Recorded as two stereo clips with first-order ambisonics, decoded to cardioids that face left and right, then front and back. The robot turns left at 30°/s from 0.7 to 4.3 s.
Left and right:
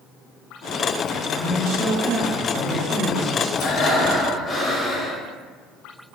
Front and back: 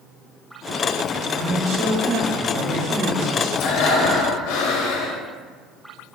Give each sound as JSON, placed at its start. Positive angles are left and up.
{"t": 1.3, "sound": "a man speaking", "azimuth_deg": -110, "distance_m": 1.7}
{"t": 3.6, "sound": "breathing", "azimuth_deg": 35, "distance_m": 0.5}